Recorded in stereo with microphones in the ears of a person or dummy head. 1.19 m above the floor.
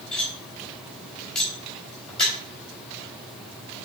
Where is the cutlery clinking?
5° left (ahead or behind), 3.5 m.